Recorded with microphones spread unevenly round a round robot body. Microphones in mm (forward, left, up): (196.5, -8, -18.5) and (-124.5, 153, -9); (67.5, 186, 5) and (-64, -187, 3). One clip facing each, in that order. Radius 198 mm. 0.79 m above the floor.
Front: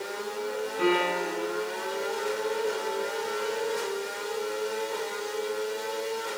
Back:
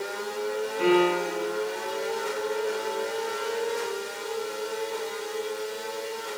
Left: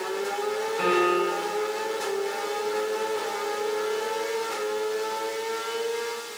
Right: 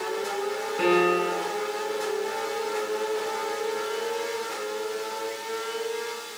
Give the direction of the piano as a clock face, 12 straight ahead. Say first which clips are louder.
Back 5 dB, right 2 dB; 3 o'clock.